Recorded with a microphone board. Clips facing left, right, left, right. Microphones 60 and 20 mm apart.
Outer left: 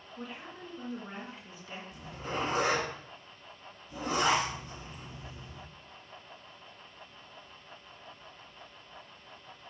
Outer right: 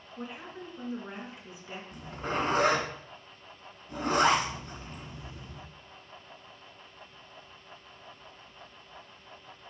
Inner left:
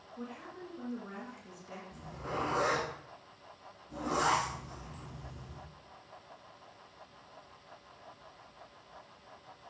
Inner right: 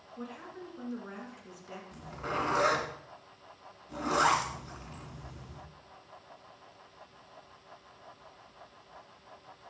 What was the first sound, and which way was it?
A woman speaking, 15° right (ahead or behind).